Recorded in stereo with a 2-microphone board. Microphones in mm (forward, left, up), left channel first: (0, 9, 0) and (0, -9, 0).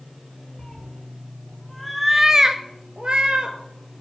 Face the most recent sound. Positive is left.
turn(degrees=-60)  # may be behind; listen again after turning